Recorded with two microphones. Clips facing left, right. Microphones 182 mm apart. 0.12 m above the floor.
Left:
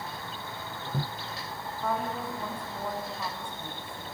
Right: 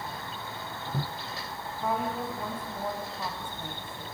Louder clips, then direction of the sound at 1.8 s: Right 1 dB; 5° right (ahead or behind).